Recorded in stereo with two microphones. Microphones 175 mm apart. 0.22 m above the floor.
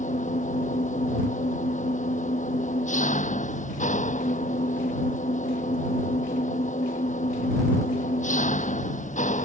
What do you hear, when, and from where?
0.0 s an engine running: 45° left (ahead or behind)